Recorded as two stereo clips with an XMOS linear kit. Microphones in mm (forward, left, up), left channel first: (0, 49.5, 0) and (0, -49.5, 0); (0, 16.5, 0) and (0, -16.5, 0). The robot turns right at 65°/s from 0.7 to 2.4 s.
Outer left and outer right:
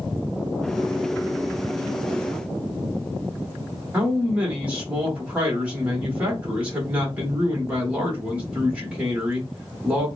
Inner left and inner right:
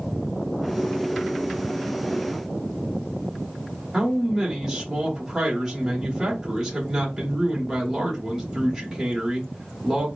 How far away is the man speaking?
About 1.1 m.